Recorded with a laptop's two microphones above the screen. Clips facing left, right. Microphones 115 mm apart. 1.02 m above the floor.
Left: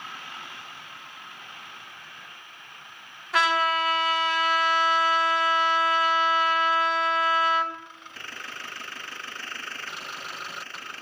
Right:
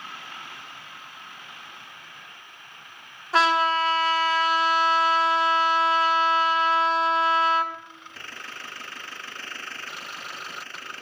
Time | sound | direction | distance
3.3 | a trumpet | 30° right (ahead or behind) | 1.5 m